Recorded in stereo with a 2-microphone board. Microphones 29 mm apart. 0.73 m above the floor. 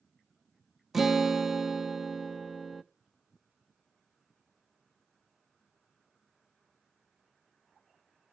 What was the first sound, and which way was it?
A guitar, 10° right (ahead or behind).